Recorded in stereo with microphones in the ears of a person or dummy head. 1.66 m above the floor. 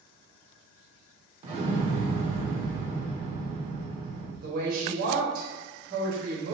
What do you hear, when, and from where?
1.4 s an explosion: 35° right (ahead or behind), 1.5 m
4.4 s a woman speaking: 55° right (ahead or behind), 1.2 m